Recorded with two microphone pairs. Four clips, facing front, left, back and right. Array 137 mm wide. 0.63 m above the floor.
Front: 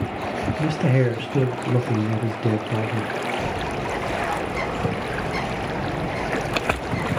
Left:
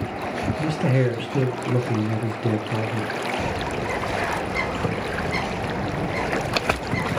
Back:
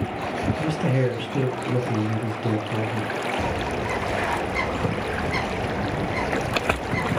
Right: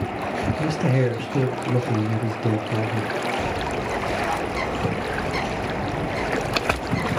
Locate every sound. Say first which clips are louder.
0.6 s a man speaking: left 1 dB, front 4 dB; 10° left, 0.5 m
3.4 s a bird: right 1 dB, even; 145° left, 2.5 m